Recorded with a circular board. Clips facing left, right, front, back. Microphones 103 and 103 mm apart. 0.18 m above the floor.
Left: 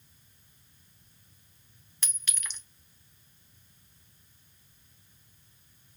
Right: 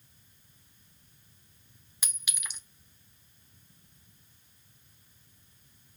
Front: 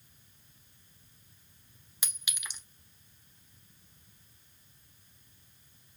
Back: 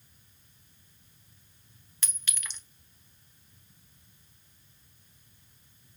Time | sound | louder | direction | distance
2.0 | a clink | even, even | 40° right | 0.6 m